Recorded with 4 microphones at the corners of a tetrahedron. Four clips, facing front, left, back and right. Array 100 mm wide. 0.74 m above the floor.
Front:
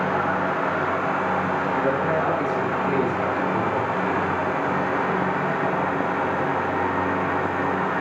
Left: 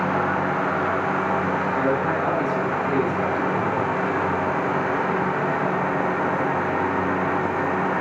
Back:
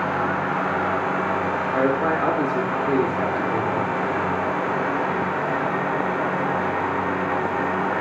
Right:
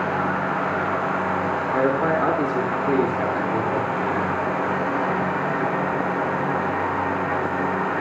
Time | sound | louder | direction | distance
1.7 | a man speaking | right 5 dB, back 3 dB | 130° right | 1.9 m